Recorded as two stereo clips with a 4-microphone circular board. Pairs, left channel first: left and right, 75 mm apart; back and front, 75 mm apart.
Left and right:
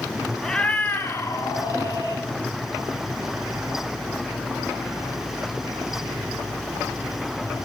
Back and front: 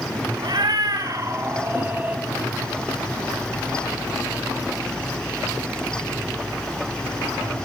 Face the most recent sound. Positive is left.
turn(degrees=65)